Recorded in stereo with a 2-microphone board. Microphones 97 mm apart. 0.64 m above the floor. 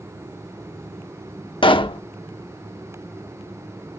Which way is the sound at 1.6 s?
60° left (ahead or behind).